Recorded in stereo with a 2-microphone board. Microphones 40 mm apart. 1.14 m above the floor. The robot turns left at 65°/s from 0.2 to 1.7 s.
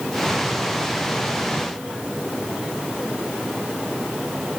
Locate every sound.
Only background noise.